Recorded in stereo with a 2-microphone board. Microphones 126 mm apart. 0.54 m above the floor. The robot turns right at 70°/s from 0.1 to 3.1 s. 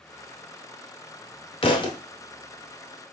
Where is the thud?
45° left (ahead or behind), 0.6 m; by 2.0 s 30° left (ahead or behind), 0.6 m.